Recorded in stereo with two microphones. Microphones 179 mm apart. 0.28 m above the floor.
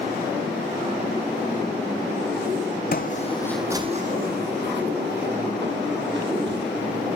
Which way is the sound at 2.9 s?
55° left (ahead or behind).